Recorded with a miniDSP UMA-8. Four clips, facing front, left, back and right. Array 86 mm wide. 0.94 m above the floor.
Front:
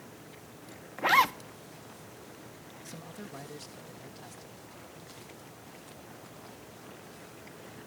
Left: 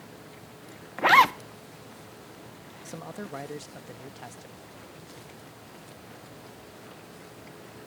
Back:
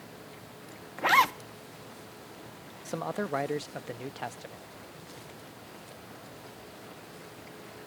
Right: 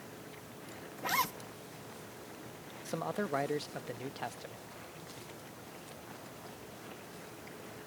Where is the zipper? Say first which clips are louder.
Left 16 dB, back 1 dB; 95° left.